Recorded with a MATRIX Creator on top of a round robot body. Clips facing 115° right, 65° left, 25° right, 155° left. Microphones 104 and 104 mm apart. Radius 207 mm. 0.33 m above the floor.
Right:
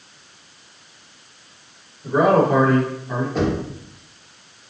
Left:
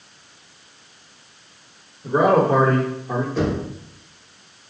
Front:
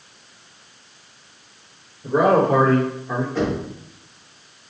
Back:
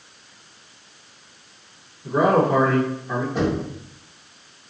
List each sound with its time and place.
2.0 s a man speaking: 10° right, 1.7 m; by 3.2 s 65° left, 1.3 m
3.4 s knocking: 125° right, 2 m